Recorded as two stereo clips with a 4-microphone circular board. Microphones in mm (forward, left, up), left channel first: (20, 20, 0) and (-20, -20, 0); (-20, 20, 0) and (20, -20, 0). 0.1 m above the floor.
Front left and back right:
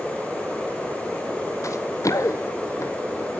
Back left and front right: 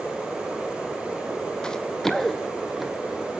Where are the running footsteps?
60° left, 1.1 m; by 3.3 s 40° left, 2.5 m.